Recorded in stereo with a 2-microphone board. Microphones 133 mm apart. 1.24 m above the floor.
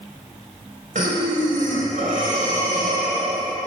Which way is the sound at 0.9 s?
70° right (ahead or behind).